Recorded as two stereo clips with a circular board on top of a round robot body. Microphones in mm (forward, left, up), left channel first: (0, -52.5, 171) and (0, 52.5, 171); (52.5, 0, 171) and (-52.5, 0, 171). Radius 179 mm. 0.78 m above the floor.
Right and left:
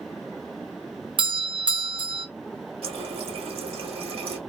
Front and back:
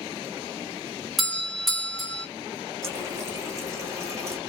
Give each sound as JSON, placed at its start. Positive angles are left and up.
{"t": 1.2, "sound": "a doorbell", "azimuth_deg": 90, "distance_m": 1.3}
{"t": 2.8, "sound": "a running tap", "azimuth_deg": 115, "distance_m": 1.1}